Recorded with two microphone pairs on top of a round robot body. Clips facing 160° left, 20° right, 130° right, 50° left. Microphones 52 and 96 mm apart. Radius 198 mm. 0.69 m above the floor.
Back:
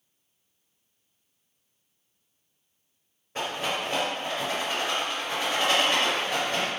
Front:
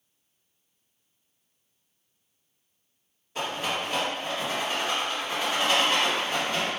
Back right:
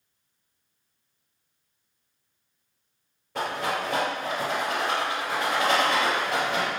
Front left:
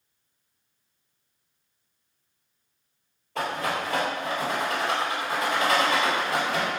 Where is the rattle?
145° right, 1.8 m.